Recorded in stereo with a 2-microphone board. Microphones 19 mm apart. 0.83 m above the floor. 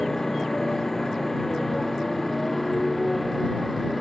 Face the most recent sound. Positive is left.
turn(degrees=10)  # may be behind; listen again after turning